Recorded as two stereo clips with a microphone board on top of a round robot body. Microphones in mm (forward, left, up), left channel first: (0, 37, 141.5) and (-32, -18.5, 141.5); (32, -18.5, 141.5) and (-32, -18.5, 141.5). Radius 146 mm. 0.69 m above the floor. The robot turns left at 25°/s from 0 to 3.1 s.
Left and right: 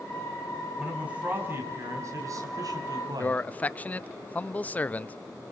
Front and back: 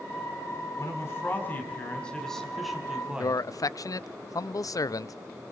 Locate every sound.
0.8 s a man speaking: 45° right, 5 m; by 3.4 s 100° right, 5 m
3.2 s a man speaking: 5° right, 0.7 m